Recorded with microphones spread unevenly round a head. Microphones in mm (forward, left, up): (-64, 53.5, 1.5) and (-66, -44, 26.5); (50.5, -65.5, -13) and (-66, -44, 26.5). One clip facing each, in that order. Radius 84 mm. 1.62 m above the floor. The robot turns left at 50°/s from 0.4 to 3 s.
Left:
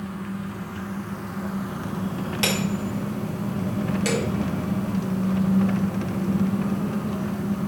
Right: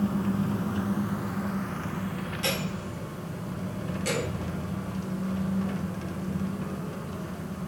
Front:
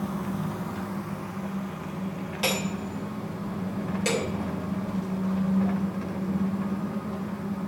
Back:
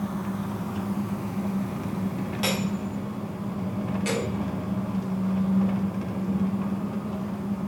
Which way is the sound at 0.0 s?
115° right.